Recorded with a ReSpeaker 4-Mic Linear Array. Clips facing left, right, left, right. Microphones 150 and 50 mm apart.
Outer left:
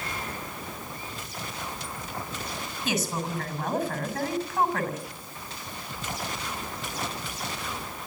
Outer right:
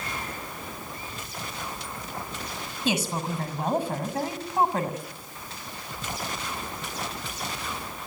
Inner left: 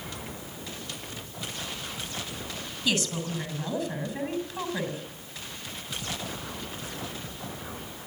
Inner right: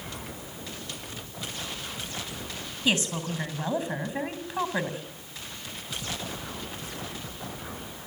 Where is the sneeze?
I don't hear a sneeze.